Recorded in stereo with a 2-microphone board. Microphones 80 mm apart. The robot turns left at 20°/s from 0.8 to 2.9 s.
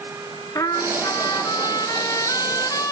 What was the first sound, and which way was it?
A trumpet, 100° left.